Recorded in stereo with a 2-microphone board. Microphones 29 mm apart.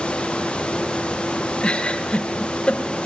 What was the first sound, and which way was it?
A giggle, 35° left (ahead or behind).